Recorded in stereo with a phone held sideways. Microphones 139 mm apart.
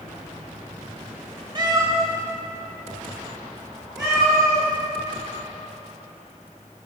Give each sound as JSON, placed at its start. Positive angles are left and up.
{"t": 1.6, "sound": "a cat meowing", "side_deg": -30, "distance_m": 0.9}